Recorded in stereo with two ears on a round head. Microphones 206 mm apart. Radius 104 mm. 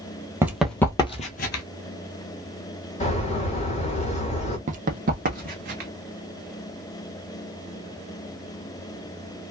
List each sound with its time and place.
0.4 s running footsteps: 10° right (ahead or behind), 0.6 m; by 1.6 s 45° left (ahead or behind), 0.7 m
3.0 s a bird: 30° left (ahead or behind), 1.3 m
4.7 s running footsteps: 35° right (ahead or behind), 0.5 m; by 5.9 s 40° right (ahead or behind), 1.2 m